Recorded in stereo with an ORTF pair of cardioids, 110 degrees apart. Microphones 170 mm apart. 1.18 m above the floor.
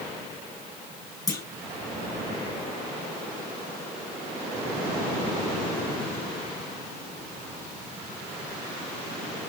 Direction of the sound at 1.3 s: 20° left.